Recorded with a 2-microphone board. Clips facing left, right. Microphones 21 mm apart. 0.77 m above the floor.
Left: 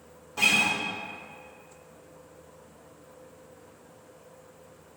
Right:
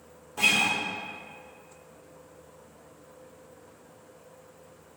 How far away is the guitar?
About 1.1 m.